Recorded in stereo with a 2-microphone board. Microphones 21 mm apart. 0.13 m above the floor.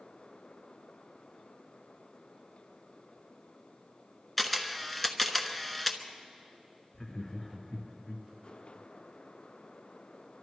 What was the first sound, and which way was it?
A camera shutter, 5° left (ahead or behind).